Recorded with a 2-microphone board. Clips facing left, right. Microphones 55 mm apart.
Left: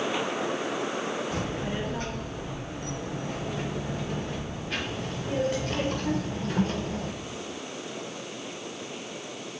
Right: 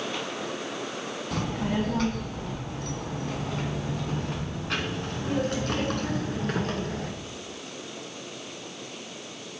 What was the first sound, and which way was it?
A child speaking, 65° right (ahead or behind).